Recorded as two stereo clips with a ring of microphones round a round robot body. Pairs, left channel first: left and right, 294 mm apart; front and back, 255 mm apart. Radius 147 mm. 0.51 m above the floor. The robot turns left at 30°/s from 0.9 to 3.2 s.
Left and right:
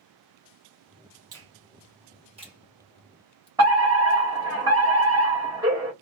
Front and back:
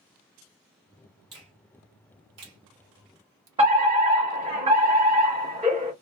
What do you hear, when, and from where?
1.3 s a finger snap: 130° right, 0.9 m; by 3.5 s 175° left, 0.9 m
3.6 s a fire alarm: 150° right, 1.9 m